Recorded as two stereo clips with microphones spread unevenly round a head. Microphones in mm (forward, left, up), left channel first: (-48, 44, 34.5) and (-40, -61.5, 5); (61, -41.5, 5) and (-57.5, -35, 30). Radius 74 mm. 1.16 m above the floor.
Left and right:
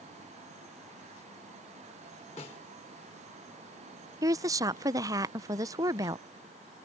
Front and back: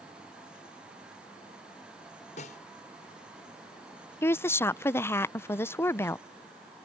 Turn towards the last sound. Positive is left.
turn(degrees=-55)